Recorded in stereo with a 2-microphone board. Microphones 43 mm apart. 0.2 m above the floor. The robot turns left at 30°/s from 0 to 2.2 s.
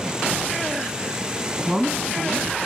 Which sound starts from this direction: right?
A woman speaking, at 1.7 s.